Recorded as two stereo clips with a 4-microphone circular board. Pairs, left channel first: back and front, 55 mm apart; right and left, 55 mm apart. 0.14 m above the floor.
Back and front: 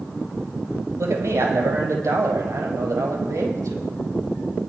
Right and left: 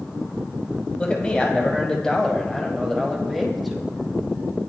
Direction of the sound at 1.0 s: 20° right.